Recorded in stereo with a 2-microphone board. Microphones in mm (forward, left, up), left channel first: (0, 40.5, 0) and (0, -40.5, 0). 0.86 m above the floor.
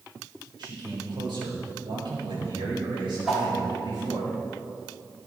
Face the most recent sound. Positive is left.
turn(degrees=-5)  # may be behind; listen again after turning